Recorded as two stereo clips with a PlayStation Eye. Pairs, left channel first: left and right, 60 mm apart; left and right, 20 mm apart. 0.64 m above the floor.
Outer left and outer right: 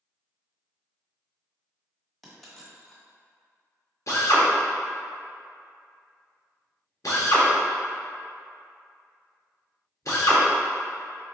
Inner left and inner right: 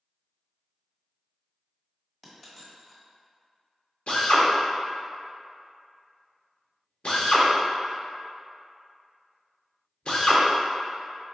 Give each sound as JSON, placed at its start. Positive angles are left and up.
{"t": 2.2, "sound": "a dropped coin", "side_deg": 5, "distance_m": 1.4}
{"t": 4.1, "sound": "a drill", "side_deg": 60, "distance_m": 0.9}